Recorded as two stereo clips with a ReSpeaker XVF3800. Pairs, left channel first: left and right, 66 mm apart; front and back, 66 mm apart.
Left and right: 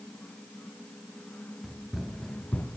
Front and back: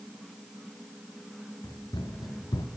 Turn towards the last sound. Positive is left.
turn(degrees=25)